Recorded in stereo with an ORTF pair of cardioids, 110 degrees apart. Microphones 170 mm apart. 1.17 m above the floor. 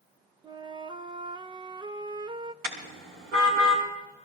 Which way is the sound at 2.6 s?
70° right.